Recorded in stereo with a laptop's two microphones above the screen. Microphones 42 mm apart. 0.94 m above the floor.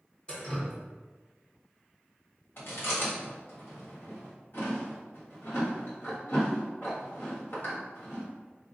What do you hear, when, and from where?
0.3 s dripping: 20° left (ahead or behind), 1.0 m
2.6 s chewing: 65° left (ahead or behind), 1.8 m